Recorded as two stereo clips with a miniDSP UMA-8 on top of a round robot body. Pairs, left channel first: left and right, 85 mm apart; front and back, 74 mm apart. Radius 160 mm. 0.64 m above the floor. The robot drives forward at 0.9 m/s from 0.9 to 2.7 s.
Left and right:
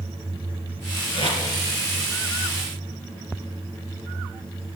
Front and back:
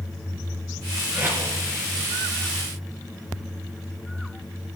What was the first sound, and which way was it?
Tape being pulled, 115° left.